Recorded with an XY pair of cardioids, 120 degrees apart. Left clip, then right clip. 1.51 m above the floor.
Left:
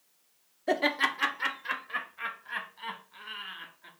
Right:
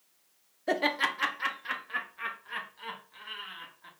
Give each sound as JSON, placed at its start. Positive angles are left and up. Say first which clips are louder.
{"t": 0.7, "sound": "laughter", "louder": "left 1 dB", "azimuth_deg": 0, "distance_m": 0.5}